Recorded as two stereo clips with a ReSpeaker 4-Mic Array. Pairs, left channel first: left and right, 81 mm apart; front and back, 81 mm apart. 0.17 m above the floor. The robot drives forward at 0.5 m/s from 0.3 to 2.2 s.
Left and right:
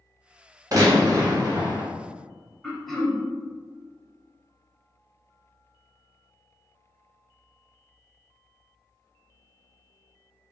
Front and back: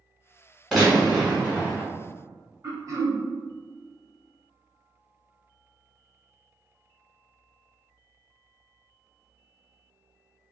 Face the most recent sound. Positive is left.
turn(degrees=175)